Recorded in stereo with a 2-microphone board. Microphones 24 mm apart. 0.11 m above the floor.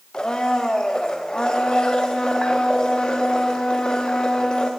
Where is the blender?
35° left (ahead or behind), 3 m.